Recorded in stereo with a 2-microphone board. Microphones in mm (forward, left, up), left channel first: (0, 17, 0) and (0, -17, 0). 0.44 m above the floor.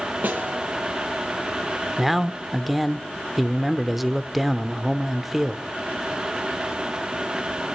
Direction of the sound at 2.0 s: 5° right (ahead or behind).